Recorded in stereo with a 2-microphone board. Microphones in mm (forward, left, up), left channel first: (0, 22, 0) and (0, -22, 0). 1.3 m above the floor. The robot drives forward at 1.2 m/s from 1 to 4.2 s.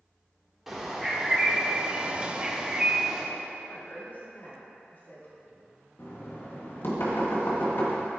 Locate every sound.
0.7 s a bird: 10° right (ahead or behind), 1.6 m
3.6 s a woman speaking: 50° left (ahead or behind), 2.5 m; by 5.6 s 40° left (ahead or behind), 3 m
6.0 s knocking: 60° left (ahead or behind), 1.8 m